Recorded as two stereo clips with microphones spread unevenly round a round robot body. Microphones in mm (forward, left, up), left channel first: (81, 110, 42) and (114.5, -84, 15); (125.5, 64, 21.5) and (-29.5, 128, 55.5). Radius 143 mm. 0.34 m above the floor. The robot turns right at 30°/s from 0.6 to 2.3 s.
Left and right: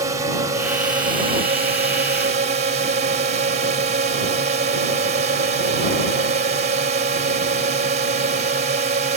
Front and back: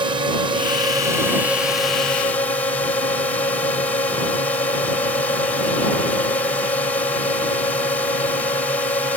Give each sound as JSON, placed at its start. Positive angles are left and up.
{"t": 0.0, "sound": "a drone", "azimuth_deg": -135}